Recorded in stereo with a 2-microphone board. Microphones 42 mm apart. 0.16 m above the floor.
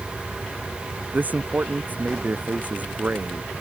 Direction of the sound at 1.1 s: 40° right (ahead or behind).